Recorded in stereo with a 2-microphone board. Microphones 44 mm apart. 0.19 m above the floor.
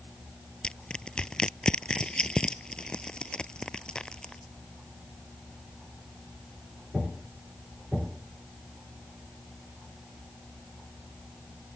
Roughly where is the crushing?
Left.